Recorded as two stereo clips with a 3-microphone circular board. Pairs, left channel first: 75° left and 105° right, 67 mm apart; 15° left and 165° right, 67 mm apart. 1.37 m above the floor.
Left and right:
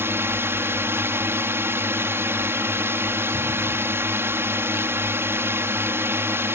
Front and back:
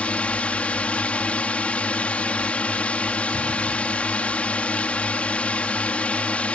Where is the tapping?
I don't hear tapping.